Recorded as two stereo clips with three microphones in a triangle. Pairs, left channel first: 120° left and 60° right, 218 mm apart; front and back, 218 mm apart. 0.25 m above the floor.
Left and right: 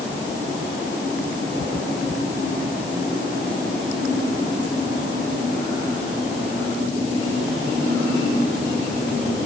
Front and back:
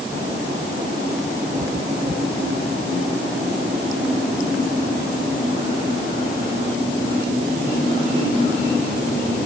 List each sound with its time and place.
Only background noise.